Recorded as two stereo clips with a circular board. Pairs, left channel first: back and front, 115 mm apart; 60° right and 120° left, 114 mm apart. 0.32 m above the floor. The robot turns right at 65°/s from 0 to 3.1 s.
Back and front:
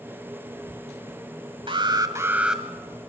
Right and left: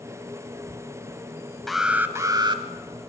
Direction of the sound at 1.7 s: 25° left.